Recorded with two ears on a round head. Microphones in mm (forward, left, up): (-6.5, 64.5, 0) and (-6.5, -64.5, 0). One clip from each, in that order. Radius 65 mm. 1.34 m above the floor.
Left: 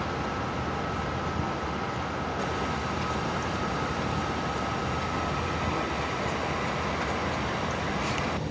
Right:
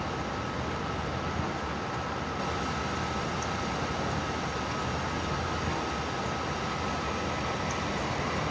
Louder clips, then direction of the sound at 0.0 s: Left 2 dB; 40° right (ahead or behind).